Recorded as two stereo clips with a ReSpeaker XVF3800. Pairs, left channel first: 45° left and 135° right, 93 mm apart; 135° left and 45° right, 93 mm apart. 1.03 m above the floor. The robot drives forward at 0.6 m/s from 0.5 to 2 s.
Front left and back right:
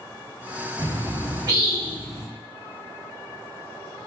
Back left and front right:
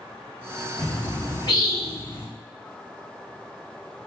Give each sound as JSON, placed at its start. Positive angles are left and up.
{"t": 0.8, "sound": "a bird", "azimuth_deg": 175, "distance_m": 0.7}